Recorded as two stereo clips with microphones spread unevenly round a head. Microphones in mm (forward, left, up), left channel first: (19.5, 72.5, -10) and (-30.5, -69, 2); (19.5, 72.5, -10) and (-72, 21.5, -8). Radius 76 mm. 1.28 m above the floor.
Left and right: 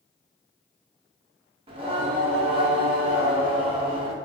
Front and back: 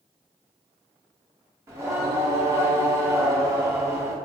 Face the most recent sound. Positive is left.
turn(degrees=-105)